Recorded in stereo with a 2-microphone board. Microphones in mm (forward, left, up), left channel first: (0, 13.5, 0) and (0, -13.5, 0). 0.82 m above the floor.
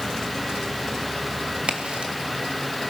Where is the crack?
45° right (ahead or behind), 1.8 m.